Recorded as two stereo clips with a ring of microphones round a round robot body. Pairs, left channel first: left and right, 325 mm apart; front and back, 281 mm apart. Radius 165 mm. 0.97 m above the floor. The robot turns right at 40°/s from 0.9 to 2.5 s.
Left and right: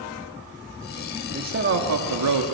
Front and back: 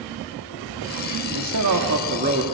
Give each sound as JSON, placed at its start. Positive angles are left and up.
{"t": 1.3, "sound": "a man speaking", "azimuth_deg": -155, "distance_m": 2.0}